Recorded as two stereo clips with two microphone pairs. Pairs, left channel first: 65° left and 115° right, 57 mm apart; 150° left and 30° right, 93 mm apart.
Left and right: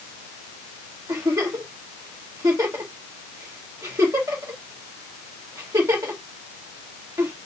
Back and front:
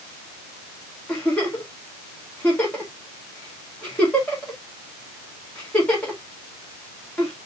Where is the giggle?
130° right, 1.9 m.